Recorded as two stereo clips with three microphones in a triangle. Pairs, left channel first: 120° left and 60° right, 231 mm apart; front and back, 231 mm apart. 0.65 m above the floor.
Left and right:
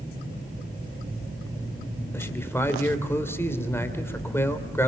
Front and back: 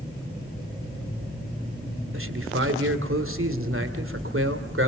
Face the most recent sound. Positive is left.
turn(degrees=-160)